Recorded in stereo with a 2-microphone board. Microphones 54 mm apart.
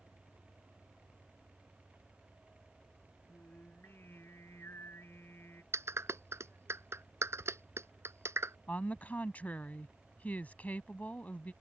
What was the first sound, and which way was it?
Singing, 50° left (ahead or behind).